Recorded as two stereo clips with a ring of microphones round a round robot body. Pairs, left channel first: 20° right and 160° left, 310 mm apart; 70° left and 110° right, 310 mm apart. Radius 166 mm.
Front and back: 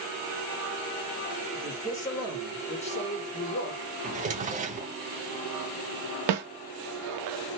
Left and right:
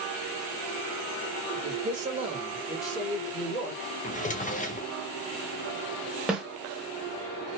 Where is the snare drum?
160° left, 0.8 m.